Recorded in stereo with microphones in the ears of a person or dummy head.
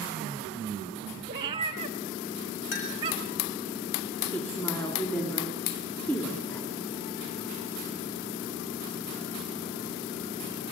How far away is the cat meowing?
About 1.5 m.